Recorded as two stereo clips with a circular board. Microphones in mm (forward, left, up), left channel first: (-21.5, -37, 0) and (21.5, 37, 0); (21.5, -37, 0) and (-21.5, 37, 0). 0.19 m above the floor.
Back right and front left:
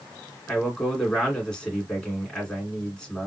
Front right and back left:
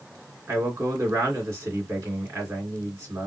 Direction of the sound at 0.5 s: 160° left.